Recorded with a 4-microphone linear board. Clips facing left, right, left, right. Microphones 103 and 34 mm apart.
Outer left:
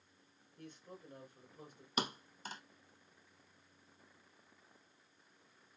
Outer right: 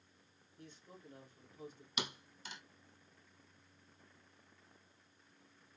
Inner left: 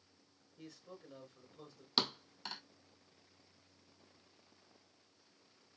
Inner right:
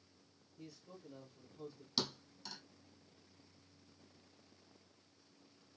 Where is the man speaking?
45° left (ahead or behind), 3 m.